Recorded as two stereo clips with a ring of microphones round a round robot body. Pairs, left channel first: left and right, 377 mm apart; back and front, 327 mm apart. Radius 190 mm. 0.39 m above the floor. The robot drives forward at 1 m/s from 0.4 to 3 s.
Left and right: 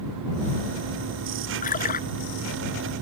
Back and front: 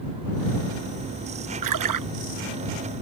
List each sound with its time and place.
1.6 s a splash: 20° left